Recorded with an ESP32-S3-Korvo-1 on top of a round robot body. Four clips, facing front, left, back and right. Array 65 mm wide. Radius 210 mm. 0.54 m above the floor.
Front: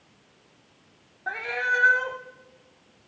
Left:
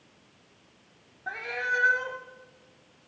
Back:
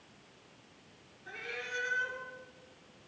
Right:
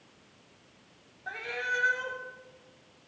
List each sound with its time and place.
1.3 s a cat meowing: 15° left, 0.8 m